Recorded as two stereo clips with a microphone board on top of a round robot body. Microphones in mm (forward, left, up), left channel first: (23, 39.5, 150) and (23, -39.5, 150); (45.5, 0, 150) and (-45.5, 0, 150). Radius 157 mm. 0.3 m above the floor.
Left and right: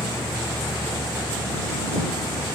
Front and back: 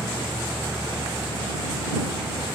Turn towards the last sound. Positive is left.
turn(degrees=110)